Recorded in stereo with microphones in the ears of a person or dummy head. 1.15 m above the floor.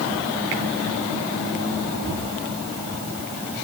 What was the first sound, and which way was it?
Only background noise.